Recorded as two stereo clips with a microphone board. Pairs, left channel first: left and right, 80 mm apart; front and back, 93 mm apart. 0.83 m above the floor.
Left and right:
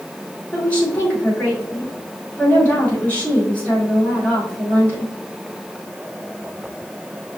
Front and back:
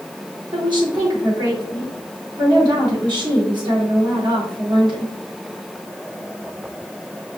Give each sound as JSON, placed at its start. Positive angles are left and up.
{"t": 0.5, "sound": "a woman speaking", "azimuth_deg": 160, "distance_m": 2.5}